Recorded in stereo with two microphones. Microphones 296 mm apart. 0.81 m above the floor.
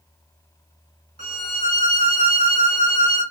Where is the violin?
30° right (ahead or behind), 1.8 m.